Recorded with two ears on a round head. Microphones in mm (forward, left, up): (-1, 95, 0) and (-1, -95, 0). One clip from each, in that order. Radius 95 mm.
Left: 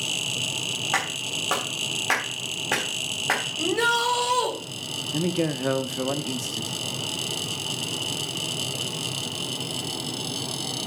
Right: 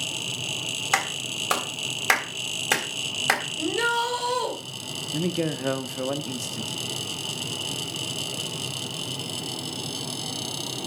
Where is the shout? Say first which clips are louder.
Left 2 dB; 15° left (ahead or behind), 3.5 m.